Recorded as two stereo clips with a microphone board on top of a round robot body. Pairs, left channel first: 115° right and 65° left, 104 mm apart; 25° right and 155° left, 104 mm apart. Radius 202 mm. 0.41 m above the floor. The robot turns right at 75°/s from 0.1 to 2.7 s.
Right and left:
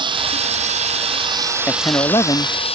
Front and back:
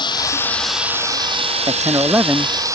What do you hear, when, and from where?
0.0 s running water: 25° left; by 2.7 s 140° right
1.7 s a man speaking: straight behind; by 2.6 s 115° right